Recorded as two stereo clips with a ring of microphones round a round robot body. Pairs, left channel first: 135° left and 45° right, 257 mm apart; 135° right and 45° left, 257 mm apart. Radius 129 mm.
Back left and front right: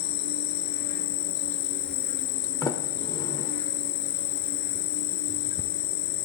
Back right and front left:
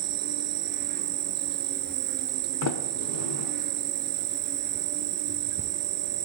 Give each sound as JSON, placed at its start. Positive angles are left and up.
{"t": 0.0, "sound": "an insect", "azimuth_deg": 95, "distance_m": 0.8}
{"t": 2.6, "sound": "a sliding door", "azimuth_deg": -150, "distance_m": 0.6}